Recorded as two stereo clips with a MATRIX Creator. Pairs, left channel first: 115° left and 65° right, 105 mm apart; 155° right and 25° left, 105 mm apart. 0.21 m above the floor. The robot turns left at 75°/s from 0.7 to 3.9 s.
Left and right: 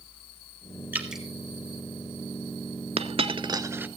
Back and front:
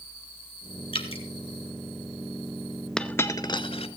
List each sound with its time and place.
0.9 s dripping: 135° right, 1.4 m; by 1.2 s 160° right, 1.4 m
3.0 s a dropped coin: 75° right, 0.7 m; by 3.9 s 140° right, 0.7 m